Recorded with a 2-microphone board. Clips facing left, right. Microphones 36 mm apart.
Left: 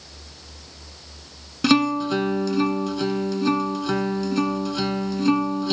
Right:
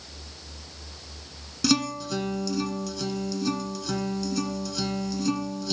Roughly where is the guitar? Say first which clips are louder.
Left 7 dB; left.